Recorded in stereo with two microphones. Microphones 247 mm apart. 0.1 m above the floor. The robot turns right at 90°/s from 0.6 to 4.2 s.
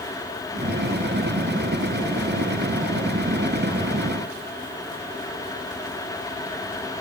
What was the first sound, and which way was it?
Only background noise.